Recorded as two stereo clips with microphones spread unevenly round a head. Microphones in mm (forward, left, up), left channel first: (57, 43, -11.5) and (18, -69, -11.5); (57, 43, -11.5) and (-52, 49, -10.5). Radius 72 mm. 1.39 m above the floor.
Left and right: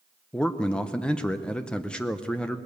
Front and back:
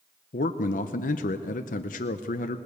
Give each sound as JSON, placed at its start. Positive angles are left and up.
{"t": 0.3, "sound": "a man speaking", "azimuth_deg": -10, "distance_m": 0.8}